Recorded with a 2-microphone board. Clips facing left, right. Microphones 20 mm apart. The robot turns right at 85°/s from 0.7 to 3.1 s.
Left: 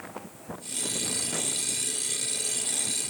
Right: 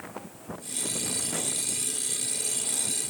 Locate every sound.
Only background noise.